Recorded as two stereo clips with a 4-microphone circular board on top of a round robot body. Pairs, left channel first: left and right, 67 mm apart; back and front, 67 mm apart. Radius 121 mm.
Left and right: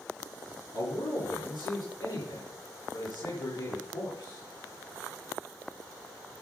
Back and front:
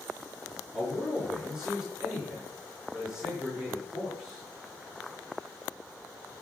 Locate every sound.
0.7 s a man speaking: 85° left, 5.5 m